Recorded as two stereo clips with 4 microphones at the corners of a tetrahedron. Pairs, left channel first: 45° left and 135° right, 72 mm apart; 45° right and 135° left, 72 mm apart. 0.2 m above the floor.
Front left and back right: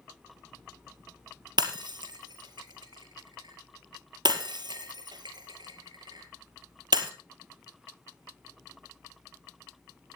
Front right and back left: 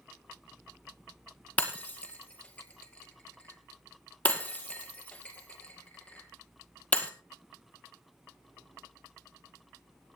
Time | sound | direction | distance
1.6 | breaking glass | 115° right | 2 m